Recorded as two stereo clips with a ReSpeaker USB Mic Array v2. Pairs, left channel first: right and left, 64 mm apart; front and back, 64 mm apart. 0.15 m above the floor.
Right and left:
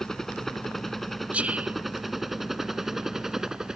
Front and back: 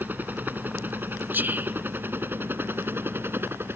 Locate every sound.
0.0 s a helicopter: 165° right; by 3.8 s 165° left
1.3 s whispering: 145° left